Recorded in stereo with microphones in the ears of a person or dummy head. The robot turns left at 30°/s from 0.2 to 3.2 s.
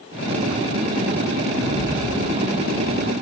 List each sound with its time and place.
1.5 s a rattle: 130° left, 0.9 m; by 3.1 s 80° left, 0.9 m